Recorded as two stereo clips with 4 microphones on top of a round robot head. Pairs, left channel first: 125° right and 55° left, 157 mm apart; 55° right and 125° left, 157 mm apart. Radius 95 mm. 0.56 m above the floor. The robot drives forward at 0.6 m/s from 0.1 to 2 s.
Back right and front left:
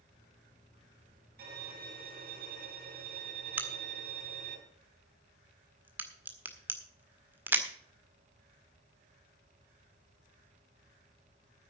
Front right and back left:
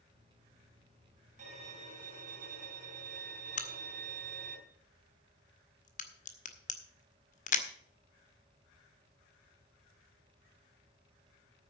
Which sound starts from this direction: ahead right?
A crack, at 3.6 s.